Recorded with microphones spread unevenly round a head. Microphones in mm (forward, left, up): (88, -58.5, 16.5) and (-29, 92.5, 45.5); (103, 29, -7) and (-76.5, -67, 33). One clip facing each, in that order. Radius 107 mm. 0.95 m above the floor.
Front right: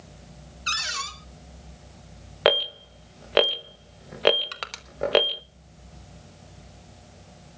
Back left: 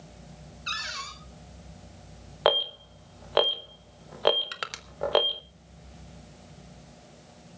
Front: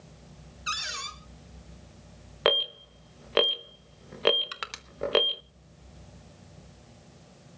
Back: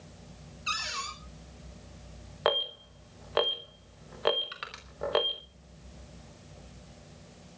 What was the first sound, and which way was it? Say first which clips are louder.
A cupboard door: front right 6 dB, even; 35° right.